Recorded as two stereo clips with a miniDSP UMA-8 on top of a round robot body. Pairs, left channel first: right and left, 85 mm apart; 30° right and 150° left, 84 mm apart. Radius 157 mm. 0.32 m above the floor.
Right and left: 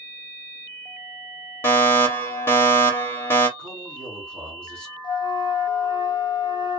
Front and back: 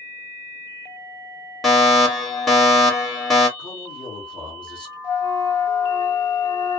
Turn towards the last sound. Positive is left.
turn(degrees=-80)